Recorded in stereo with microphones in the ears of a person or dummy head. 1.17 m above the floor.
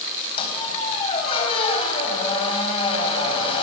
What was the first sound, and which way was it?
A squeak, 35° left (ahead or behind).